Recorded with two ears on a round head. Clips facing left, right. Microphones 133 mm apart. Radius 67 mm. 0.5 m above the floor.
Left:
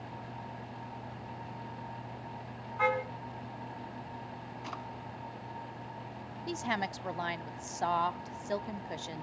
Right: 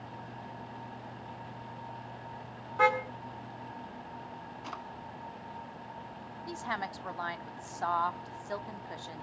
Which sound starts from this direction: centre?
A drawer, at 4.6 s.